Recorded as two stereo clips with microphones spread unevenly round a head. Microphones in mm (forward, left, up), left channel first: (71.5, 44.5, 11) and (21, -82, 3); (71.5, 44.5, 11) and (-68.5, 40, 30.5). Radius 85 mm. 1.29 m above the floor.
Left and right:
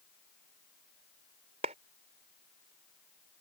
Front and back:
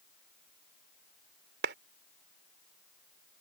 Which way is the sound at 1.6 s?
170° right.